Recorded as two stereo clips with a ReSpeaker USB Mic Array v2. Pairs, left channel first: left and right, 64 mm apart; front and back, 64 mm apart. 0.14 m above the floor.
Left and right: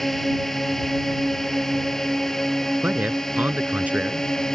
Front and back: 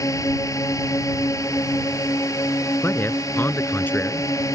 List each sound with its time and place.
0.0 s a drone: 5° left; by 4.5 s 10° left
2.8 s a man speaking: 35° right